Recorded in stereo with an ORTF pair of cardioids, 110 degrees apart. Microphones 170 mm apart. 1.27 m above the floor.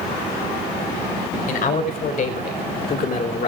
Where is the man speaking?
60° left, 5 m.